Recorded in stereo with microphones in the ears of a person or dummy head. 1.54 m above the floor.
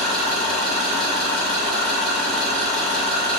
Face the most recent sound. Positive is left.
turn(degrees=-5)  # may be behind; listen again after turning